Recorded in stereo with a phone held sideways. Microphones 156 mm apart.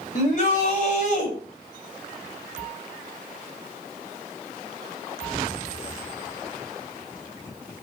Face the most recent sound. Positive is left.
turn(degrees=50)  # may be behind; listen again after turning